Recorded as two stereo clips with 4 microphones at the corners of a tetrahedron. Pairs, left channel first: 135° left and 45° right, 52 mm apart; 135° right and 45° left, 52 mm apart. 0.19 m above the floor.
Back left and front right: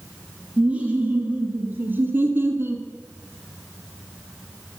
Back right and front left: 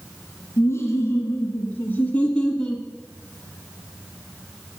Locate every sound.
0.6 s laughter: 120° right, 2.0 m; by 2.9 s 55° right, 1.6 m